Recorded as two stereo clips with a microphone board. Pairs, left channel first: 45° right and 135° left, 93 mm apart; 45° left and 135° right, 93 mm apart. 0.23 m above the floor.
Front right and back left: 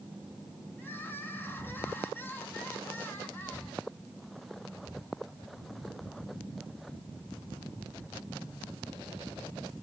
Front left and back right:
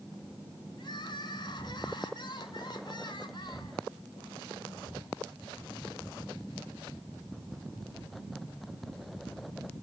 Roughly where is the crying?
Ahead.